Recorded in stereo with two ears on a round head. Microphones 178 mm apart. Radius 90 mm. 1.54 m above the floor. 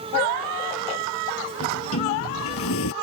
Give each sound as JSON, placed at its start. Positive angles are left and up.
{"t": 1.6, "sound": "a sliding door", "side_deg": 70}